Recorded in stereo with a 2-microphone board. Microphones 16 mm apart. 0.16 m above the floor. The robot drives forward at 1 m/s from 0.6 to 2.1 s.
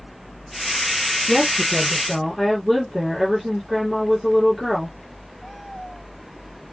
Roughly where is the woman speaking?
Centre.